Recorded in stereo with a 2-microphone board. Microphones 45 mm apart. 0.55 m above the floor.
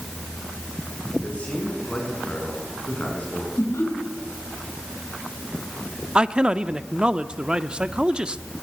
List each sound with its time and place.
1.2 s a man speaking: 30° left (ahead or behind), 7 m
3.6 s laughter: 65° left (ahead or behind), 6.5 m
6.2 s a man speaking: 20° right (ahead or behind), 0.6 m